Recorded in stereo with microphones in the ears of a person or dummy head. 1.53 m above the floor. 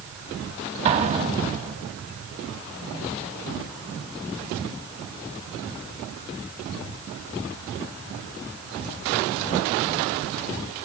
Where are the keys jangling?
I don't hear keys jangling.